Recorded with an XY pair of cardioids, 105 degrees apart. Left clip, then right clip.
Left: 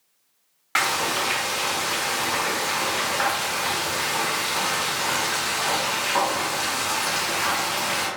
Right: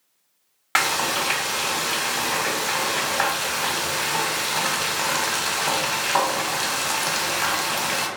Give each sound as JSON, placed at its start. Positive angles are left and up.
{"t": 0.8, "sound": "frying", "azimuth_deg": -45, "distance_m": 0.8}